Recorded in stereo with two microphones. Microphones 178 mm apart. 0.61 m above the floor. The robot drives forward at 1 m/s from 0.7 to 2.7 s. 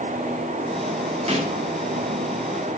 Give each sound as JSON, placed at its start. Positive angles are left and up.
{"t": 1.3, "sound": "a snare drum", "side_deg": -35, "distance_m": 1.4}